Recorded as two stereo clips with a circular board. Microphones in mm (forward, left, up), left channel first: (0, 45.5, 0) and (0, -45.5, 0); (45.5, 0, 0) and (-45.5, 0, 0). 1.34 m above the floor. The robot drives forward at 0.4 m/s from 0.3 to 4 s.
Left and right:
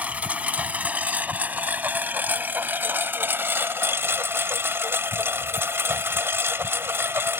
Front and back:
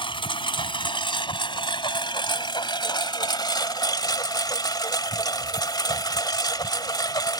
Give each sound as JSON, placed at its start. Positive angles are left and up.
{"t": 0.0, "sound": "a lawn mower", "azimuth_deg": -15}